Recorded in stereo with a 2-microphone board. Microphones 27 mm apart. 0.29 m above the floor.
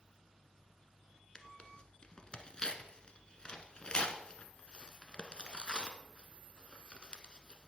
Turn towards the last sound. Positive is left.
turn(degrees=30)  # may be behind; listen again after turning